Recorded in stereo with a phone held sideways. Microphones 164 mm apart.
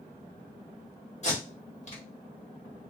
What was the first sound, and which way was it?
Tape being pulled, 45° left (ahead or behind).